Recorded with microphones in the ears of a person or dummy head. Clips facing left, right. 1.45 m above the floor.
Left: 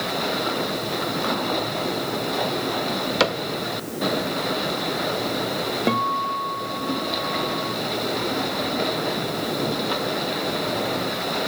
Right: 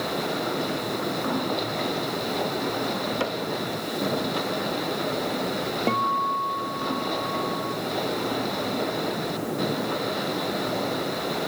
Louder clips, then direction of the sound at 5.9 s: Left 2 dB; 10° left (ahead or behind).